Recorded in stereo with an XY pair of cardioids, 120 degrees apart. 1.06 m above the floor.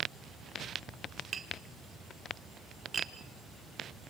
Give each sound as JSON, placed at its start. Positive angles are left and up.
{"t": 1.3, "sound": "tapping", "azimuth_deg": -30, "distance_m": 1.7}